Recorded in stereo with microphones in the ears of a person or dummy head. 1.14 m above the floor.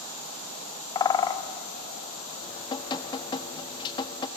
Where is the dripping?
25° left (ahead or behind), 1.1 m.